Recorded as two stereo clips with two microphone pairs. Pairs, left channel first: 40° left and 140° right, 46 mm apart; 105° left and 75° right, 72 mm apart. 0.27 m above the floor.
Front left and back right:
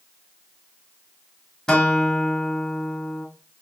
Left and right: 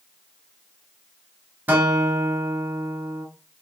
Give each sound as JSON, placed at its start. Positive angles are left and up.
{"t": 1.7, "sound": "a guitar", "azimuth_deg": -30, "distance_m": 0.8}